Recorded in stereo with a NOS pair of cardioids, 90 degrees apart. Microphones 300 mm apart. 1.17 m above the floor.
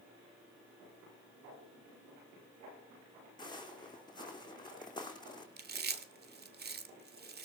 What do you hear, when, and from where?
3.4 s footsteps: 15° left, 4 m
5.6 s chewing: 35° right, 1.8 m